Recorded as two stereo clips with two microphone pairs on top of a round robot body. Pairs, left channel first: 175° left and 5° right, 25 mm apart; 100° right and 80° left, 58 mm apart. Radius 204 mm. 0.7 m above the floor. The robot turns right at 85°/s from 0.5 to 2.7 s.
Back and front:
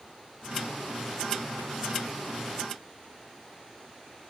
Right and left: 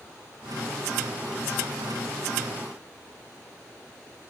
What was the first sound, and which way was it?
Only background noise.